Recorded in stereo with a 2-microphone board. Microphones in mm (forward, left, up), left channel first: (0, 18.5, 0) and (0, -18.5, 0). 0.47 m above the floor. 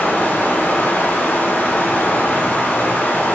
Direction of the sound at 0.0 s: 70° left (ahead or behind).